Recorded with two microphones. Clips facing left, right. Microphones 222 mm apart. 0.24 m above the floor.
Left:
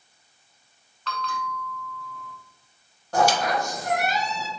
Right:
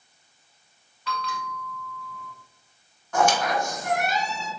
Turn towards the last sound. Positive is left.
turn(degrees=40)  # may be behind; listen again after turning